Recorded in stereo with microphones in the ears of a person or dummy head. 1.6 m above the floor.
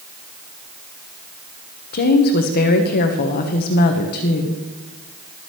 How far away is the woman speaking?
About 1.1 m.